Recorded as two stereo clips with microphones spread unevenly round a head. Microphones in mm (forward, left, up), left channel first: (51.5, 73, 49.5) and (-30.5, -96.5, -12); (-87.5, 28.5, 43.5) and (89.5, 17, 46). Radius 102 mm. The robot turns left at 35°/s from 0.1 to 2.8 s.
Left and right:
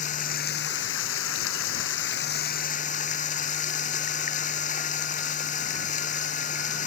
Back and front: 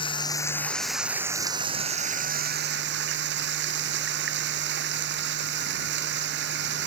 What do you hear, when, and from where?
0.0 s running water: 115° left; by 6.9 s 20° left